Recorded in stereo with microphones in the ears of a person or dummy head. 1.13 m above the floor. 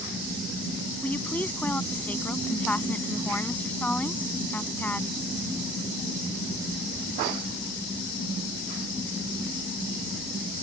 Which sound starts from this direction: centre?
A woman speaking, at 1.0 s.